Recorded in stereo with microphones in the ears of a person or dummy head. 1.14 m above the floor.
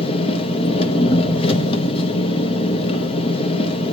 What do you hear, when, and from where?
0.0 s an engine running: 30° left (ahead or behind), 0.8 m